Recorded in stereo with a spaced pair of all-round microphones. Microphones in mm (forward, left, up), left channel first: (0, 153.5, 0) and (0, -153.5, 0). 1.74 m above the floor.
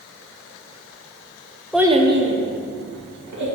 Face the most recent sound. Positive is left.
turn(degrees=-75)  # may be behind; listen again after turning